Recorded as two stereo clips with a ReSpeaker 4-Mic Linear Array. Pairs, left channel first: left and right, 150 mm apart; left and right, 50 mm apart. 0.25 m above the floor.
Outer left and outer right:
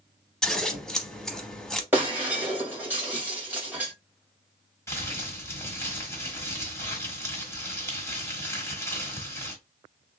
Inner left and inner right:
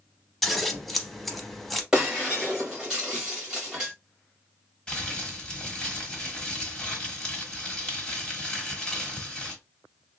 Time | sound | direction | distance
0.4 | scissors | 5° left (ahead or behind) | 0.7 m
1.9 | breaking glass | 10° right (ahead or behind) | 1.6 m
4.9 | crumpling | 15° left (ahead or behind) | 1.2 m